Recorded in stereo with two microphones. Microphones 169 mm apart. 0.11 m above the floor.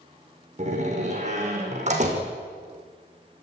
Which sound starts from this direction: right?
A door slam, at 0.6 s.